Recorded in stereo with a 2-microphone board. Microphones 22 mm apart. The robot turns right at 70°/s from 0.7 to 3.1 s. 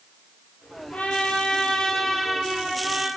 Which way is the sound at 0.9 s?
85° left.